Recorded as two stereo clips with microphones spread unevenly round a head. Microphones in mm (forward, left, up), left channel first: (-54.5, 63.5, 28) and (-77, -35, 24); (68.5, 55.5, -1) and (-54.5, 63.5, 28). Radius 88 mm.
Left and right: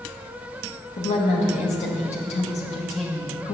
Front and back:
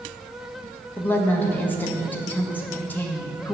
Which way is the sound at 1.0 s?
70° left.